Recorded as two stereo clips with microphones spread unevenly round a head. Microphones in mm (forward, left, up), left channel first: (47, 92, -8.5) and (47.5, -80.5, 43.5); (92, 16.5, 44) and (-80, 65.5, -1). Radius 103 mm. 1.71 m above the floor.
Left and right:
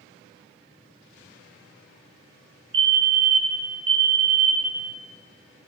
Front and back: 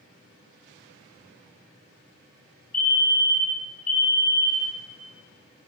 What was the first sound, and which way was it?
A fire alarm, 70° right.